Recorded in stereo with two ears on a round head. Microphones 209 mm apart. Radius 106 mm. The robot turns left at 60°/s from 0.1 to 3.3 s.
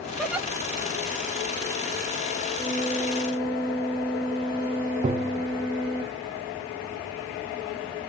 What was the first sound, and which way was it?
A giggle, centre (ahead or behind).